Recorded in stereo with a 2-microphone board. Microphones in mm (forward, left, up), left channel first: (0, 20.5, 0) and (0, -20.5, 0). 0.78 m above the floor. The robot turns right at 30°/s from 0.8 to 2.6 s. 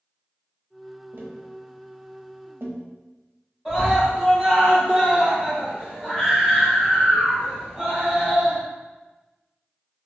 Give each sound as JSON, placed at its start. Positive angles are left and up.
{"t": 1.1, "sound": "tapping", "side_deg": -60, "distance_m": 0.5}
{"t": 3.6, "sound": "a scream", "side_deg": -5, "distance_m": 1.6}